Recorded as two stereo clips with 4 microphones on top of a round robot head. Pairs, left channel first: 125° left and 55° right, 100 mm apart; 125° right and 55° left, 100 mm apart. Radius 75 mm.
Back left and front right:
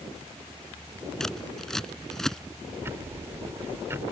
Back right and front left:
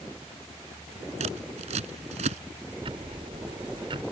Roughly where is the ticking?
Ahead.